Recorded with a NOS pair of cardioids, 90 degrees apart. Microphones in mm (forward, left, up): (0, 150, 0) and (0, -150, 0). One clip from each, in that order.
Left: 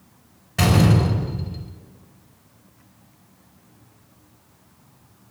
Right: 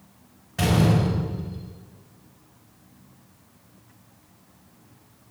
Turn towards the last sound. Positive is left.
turn(degrees=40)